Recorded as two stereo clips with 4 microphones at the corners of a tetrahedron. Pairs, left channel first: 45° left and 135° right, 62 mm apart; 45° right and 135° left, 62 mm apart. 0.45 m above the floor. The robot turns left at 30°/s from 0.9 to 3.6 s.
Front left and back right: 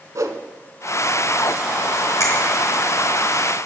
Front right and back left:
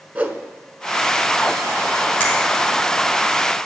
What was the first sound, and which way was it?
A whoosh, 165° right.